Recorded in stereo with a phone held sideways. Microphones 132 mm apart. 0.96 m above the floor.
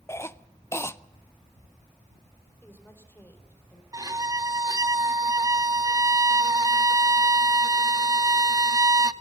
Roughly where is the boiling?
No boiling in this recording.